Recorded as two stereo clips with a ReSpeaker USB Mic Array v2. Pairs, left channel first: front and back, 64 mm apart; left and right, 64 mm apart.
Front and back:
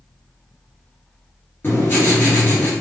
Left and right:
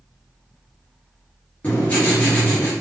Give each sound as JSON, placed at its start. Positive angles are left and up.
{"t": 1.6, "sound": "writing", "azimuth_deg": 35, "distance_m": 2.0}